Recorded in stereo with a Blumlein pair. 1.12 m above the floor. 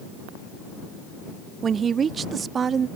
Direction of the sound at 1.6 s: 20° right.